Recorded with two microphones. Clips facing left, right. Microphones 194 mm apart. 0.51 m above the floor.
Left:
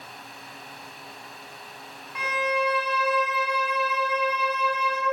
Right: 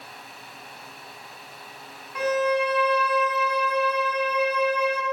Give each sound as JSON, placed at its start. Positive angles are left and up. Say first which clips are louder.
{"t": 2.1, "sound": "a violin", "louder": "right 5 dB", "side_deg": -50, "distance_m": 0.8}